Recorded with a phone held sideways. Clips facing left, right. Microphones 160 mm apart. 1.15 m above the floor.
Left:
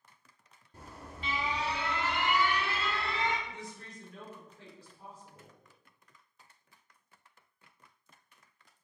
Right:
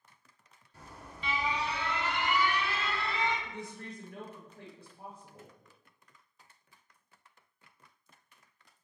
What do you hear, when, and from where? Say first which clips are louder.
0.7 s an alarm: left 2 dB; 45° left (ahead or behind), 1.3 m
3.5 s a woman speaking: right 3 dB; 55° right (ahead or behind), 1.2 m